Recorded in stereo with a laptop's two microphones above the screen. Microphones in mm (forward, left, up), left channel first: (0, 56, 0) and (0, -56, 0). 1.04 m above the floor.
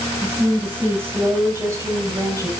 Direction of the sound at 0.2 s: 15° right (ahead or behind).